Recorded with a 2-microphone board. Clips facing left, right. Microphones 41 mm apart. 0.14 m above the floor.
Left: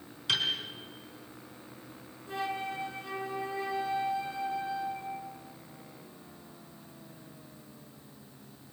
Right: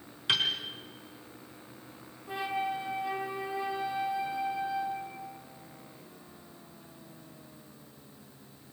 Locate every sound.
0.3 s a piano: 25° right (ahead or behind), 3.5 m
2.3 s a flute: 20° right (ahead or behind), 3 m